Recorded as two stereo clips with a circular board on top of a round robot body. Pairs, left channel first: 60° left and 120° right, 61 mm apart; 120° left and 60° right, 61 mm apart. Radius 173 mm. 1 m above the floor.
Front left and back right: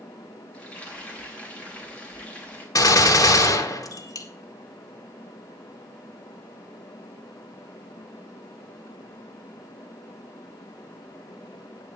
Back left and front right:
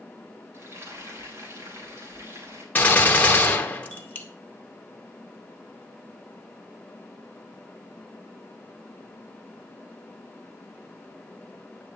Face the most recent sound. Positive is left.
turn(degrees=60)